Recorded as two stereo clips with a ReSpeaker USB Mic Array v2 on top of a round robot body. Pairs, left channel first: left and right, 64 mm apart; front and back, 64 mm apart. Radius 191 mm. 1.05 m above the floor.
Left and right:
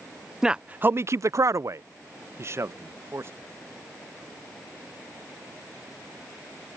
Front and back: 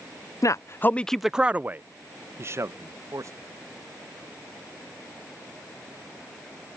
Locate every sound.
0.4 s a man speaking: 10° right; by 3.3 s 140° right